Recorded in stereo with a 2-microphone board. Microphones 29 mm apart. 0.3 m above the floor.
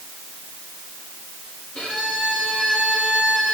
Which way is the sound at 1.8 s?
45° left (ahead or behind).